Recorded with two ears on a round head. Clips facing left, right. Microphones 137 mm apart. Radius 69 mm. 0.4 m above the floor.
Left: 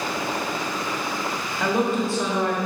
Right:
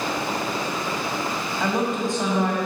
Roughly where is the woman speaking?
Centre.